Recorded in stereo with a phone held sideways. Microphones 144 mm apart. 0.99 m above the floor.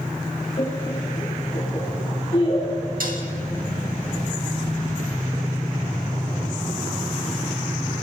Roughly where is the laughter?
Left.